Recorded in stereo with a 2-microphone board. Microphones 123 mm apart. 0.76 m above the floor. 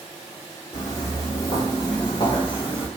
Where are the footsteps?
25° left (ahead or behind), 2.0 m; by 2.9 s 50° left (ahead or behind), 1.1 m.